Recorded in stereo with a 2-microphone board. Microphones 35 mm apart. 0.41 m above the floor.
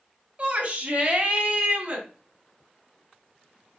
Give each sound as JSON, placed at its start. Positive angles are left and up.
{"t": 0.4, "sound": "a shout", "side_deg": -30, "distance_m": 2.5}